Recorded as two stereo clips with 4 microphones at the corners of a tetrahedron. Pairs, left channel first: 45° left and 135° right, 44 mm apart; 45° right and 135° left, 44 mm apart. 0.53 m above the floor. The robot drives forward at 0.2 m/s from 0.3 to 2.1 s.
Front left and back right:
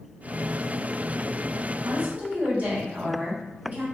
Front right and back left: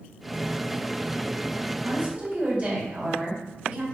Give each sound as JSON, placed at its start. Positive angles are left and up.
{"t": 1.9, "sound": "a woman speaking", "azimuth_deg": 180, "distance_m": 1.4}